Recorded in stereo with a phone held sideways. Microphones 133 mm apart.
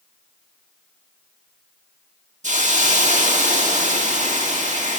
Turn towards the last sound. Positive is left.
turn(degrees=-65)  # may be behind; listen again after turning